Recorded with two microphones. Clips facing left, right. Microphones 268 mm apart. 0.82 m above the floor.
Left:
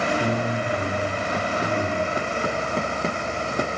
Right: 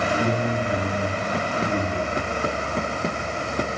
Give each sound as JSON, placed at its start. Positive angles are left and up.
{"t": 0.2, "sound": "a man speaking", "side_deg": -70, "distance_m": 7.0}